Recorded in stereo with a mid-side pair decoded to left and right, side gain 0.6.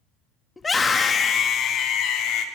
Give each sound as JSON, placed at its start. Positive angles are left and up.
{"t": 0.6, "sound": "a scream", "azimuth_deg": 20, "distance_m": 1.9}